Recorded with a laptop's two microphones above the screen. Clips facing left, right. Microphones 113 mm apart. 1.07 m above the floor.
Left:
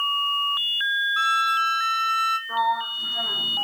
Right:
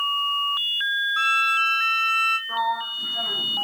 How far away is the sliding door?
About 1.4 m.